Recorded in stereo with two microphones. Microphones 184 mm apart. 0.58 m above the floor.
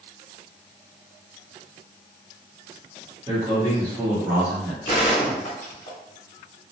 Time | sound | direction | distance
3.3 | a man speaking | 25° right (ahead or behind) | 1.3 m
4.8 | a gunshot | 40° left (ahead or behind) | 1.5 m